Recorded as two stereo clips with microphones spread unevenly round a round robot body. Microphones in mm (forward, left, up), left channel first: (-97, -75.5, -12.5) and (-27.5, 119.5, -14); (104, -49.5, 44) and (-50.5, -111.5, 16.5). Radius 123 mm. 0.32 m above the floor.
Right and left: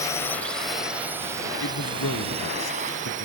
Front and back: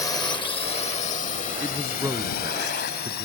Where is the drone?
45° right; by 3.2 s 15° left.